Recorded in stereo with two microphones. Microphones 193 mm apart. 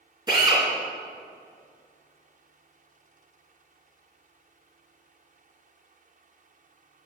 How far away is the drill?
About 3 m.